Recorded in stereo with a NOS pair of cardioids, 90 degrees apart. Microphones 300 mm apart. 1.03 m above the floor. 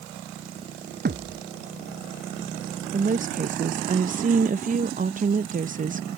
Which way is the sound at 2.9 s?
30° right.